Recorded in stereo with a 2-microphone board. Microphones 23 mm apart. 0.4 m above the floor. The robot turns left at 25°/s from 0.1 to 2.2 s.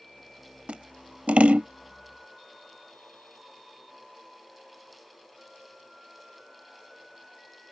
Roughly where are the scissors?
Right.